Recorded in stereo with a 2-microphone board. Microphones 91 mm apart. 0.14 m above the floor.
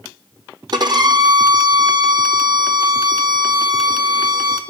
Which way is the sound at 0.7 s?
50° right (ahead or behind).